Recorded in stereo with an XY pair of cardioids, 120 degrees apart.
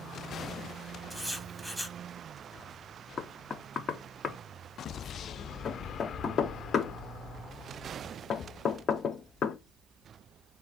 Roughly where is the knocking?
Ahead left.